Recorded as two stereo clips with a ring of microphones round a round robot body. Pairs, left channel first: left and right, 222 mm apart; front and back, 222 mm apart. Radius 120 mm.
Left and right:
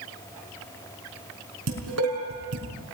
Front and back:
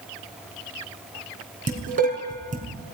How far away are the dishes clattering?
About 4.5 m.